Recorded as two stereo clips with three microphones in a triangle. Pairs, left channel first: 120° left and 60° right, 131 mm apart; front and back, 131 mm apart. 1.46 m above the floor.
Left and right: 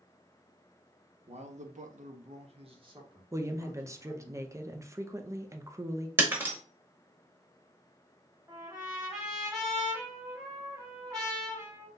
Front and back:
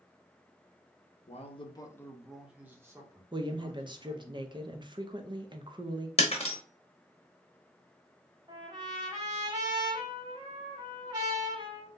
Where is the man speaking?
25° right, 0.7 m; by 4.3 s 130° right, 1.7 m.